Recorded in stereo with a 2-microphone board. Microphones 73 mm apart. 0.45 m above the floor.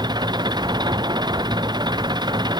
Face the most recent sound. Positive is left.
turn(degrees=-80)